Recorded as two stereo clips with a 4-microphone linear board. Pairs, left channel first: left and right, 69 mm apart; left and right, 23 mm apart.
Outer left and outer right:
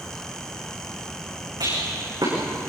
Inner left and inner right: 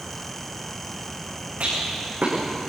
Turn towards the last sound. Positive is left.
turn(degrees=-80)